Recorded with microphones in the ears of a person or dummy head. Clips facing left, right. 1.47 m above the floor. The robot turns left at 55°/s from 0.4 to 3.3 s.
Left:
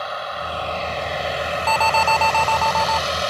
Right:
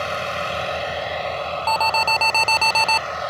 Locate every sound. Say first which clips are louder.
0.0 s a vehicle: right 3 dB; 150° right; by 3.3 s 50° left
1.7 s an alarm: left 3 dB; 5° left; by 3.0 s 70° right